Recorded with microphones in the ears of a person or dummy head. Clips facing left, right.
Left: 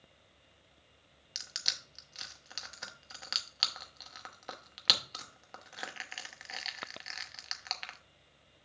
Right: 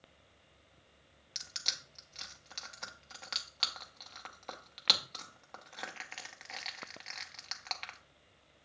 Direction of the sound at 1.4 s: 5° left (ahead or behind).